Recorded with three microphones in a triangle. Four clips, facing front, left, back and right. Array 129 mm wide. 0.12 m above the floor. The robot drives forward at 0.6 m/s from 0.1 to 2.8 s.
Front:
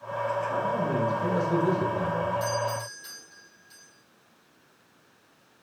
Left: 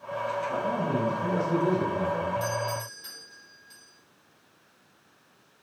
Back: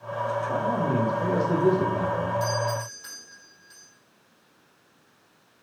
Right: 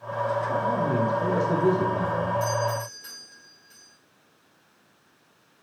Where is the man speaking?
140° right, 7 m; by 2.3 s 145° right, 7.5 m.